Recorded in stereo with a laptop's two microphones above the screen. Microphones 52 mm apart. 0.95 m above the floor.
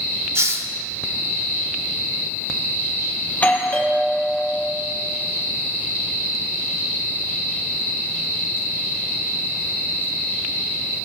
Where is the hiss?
55° right (ahead or behind), 0.7 m.